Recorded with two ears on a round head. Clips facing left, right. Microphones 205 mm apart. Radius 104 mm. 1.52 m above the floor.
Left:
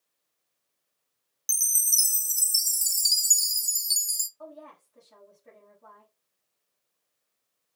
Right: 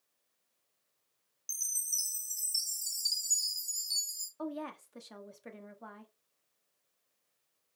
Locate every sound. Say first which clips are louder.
1.5 s a chime: left 10 dB; 70° left (ahead or behind), 0.5 m
4.4 s a woman speaking: right 7 dB; 80° right, 1.0 m